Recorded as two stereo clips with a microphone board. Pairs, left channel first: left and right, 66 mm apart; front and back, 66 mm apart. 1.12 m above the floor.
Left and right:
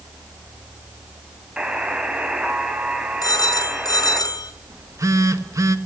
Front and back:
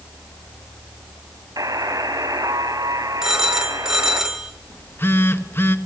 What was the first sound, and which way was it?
A buzzer, 165° right.